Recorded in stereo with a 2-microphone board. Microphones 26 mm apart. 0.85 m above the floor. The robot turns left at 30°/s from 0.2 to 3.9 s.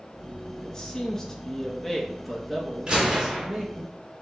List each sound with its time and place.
0.6 s a man speaking: 40° left, 1.0 m; by 3.9 s 60° right, 1.0 m
2.9 s a gunshot: 30° right (ahead or behind), 1.6 m; by 3.5 s 15° right (ahead or behind), 1.6 m